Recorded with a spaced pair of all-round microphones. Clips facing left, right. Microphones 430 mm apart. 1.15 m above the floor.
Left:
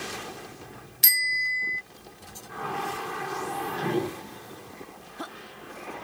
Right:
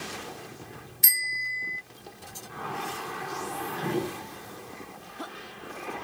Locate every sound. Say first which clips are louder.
1.0 s a bicycle bell: left 2 dB; 80° left